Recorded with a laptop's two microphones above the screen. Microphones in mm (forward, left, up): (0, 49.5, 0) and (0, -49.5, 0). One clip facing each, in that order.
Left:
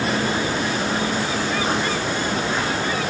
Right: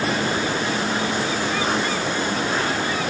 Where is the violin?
No violin in this recording.